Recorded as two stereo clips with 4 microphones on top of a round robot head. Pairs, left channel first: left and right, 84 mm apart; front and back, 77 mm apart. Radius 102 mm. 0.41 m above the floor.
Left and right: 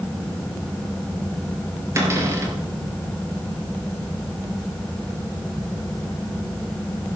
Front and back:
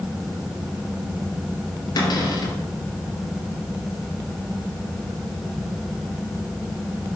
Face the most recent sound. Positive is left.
turn(degrees=-35)